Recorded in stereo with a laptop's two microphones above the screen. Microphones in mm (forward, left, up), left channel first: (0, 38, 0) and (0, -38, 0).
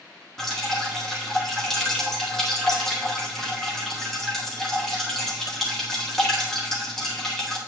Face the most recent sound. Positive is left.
turn(degrees=5)  # may be behind; listen again after turning